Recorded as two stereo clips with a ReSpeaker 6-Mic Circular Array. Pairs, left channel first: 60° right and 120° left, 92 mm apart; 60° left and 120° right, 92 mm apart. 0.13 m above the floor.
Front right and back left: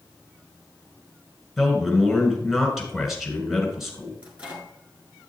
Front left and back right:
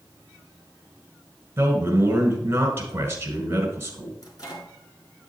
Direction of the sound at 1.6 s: 155° right.